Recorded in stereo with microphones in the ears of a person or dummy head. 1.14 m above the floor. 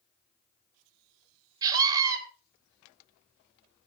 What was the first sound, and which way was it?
A scream, 20° right (ahead or behind).